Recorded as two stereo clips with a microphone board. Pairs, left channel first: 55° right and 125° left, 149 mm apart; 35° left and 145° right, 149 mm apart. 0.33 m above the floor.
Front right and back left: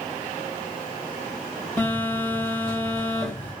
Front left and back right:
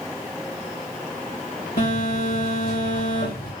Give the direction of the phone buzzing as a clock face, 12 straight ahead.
11 o'clock.